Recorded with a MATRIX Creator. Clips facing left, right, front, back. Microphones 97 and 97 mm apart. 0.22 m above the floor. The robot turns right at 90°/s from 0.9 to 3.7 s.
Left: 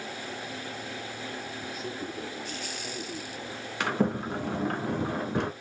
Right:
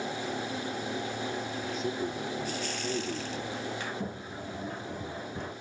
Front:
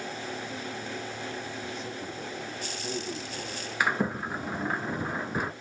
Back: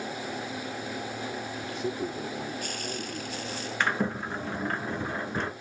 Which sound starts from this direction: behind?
A man speaking, at 1.6 s.